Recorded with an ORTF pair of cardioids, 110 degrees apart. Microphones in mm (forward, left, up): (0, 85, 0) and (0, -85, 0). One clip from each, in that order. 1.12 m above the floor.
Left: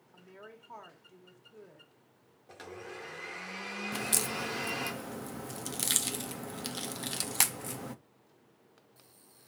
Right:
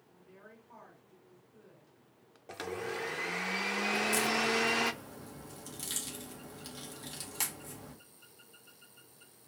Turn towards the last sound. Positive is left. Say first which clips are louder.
# right 3 dB
turn(degrees=55)